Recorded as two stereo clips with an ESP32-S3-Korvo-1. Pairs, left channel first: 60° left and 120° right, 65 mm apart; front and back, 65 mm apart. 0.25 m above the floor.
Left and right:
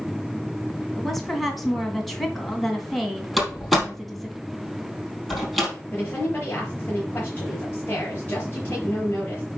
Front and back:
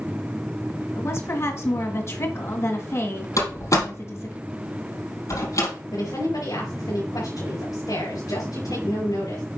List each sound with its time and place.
0.9 s a woman speaking: 30° right, 1.9 m
3.4 s a door slam: 30° right, 4.5 m
5.9 s a woman speaking: straight ahead, 4.5 m